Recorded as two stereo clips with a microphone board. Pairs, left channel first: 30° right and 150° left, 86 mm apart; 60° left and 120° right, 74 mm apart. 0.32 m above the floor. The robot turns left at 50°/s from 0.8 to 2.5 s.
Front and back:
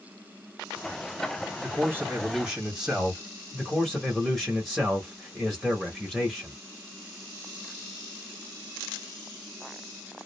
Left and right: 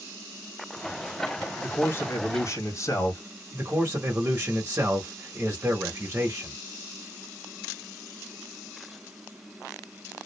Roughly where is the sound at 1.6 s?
Left.